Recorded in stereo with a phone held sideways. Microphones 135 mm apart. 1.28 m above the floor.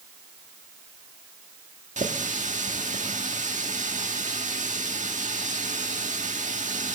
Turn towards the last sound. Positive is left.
turn(degrees=-60)  # may be behind; listen again after turning